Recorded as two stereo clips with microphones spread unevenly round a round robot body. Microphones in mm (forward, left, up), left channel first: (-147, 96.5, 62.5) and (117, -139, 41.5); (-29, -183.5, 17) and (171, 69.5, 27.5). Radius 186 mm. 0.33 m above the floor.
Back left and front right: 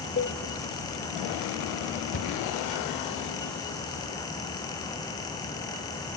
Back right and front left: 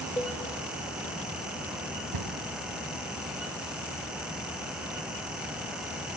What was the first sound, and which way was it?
A cowbell, 160° left.